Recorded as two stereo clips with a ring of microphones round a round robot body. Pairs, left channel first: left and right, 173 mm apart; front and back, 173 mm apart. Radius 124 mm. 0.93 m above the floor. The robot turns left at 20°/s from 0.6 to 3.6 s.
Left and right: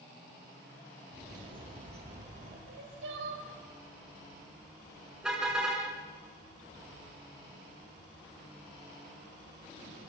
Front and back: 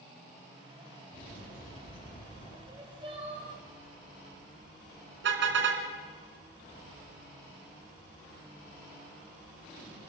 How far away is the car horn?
About 4 m.